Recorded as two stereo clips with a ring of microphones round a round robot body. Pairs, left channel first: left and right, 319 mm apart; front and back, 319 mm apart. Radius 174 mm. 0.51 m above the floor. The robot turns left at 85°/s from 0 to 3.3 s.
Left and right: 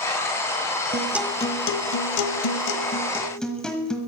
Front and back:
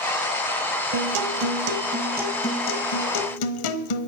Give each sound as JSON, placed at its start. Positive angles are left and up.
{"t": 0.9, "sound": "a guitar", "azimuth_deg": -155, "distance_m": 1.1}